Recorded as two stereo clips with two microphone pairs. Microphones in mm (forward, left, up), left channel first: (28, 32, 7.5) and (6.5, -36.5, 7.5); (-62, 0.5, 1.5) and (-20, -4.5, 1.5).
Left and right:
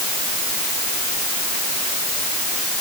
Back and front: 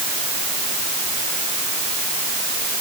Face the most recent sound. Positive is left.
No sound to turn to.